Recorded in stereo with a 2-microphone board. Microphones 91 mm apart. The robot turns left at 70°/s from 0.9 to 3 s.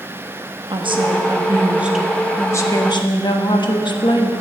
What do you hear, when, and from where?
0.7 s a woman speaking: 100° right, 1.1 m; by 4.3 s 115° left, 1.1 m